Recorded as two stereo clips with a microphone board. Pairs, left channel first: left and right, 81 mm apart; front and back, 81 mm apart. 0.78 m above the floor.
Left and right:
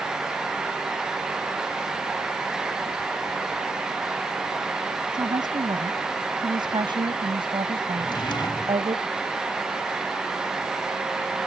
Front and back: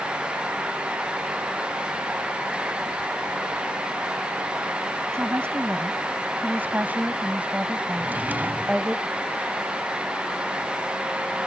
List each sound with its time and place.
5.1 s a woman speaking: 120° right; by 9.0 s 95° right
8.0 s a drawer: 110° left